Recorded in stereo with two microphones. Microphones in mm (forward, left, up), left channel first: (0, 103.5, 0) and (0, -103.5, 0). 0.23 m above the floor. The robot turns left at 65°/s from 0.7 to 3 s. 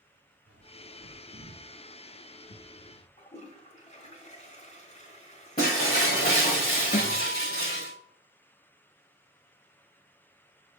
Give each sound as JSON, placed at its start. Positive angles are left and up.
{"t": 0.5, "sound": "a bird", "side_deg": -75, "distance_m": 3.5}
{"t": 3.2, "sound": "a toilet flushing", "side_deg": 35, "distance_m": 1.7}
{"t": 5.6, "sound": "breaking glass", "side_deg": 45, "distance_m": 4.0}
{"t": 6.9, "sound": "a guitar", "side_deg": 45, "distance_m": 3.0}